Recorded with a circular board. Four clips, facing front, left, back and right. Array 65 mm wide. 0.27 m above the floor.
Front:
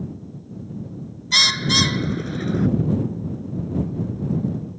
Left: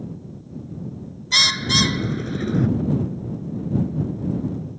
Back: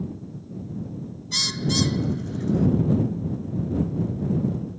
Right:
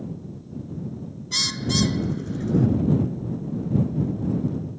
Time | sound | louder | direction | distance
1.3 | a bird | left 5 dB, front 5 dB | 40° left | ?